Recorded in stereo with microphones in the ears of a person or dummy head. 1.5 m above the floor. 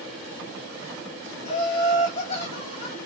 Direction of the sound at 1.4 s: 25° left (ahead or behind).